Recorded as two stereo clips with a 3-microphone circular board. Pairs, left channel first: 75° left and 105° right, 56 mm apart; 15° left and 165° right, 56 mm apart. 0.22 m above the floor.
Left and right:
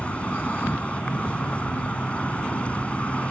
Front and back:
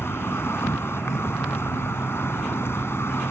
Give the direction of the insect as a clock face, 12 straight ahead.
11 o'clock.